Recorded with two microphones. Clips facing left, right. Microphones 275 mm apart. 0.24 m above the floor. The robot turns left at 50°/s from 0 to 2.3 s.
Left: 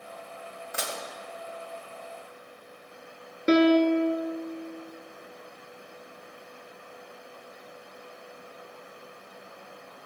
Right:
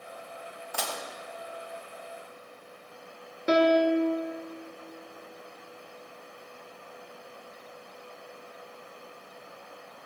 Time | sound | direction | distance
0.7 | dishes clattering | 20° left (ahead or behind) | 0.6 m
3.5 | a piano | 25° left (ahead or behind) | 0.5 m